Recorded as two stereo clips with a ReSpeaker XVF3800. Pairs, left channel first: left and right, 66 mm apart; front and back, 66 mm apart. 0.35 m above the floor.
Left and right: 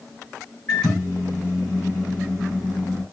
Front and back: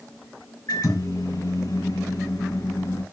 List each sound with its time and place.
0.7 s a microwave: 15° left, 4 m